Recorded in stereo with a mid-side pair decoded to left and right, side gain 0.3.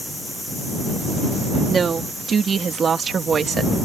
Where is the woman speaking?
60° right; by 3.8 s 65° right.